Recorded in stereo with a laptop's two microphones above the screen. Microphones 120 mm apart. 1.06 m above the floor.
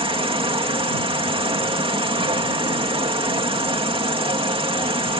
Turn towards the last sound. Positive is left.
turn(degrees=-50)  # may be behind; listen again after turning